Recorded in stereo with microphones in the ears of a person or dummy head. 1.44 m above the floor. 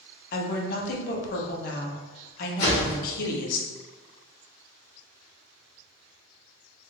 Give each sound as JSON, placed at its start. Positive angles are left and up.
{"t": 0.3, "sound": "a woman speaking", "side_deg": 50, "distance_m": 0.9}
{"t": 2.6, "sound": "a whoosh", "side_deg": 40, "distance_m": 1.4}